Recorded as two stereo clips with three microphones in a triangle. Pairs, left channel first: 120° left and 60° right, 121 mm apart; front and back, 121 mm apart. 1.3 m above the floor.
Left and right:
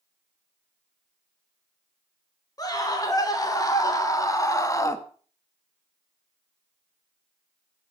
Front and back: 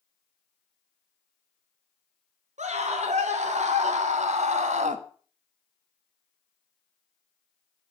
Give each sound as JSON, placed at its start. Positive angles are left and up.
{"t": 2.6, "sound": "a scream", "azimuth_deg": 175, "distance_m": 4.5}